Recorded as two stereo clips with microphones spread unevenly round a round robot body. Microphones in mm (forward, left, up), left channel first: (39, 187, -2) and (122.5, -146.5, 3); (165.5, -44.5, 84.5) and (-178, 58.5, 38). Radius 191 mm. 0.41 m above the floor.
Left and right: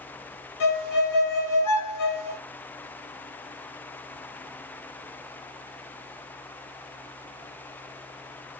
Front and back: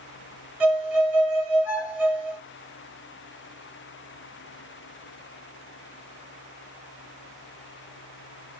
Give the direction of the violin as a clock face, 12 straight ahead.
9 o'clock.